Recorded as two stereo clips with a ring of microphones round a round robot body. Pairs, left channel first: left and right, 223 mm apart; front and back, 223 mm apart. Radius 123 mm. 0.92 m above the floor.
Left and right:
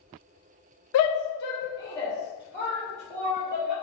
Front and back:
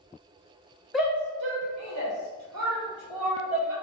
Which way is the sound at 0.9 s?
90° left.